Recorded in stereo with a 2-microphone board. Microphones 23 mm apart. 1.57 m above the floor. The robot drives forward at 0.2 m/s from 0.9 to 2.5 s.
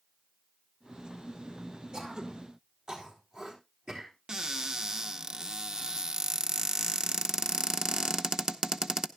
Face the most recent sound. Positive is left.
turn(degrees=-35)  # may be behind; listen again after turning